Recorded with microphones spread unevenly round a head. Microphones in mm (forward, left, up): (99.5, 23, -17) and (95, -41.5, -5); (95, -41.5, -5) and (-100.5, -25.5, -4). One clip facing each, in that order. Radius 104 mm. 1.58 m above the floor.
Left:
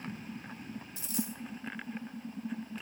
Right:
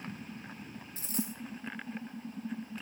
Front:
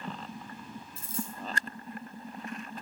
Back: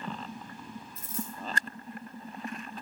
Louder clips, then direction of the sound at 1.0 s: Even, front 1 dB; 60° right.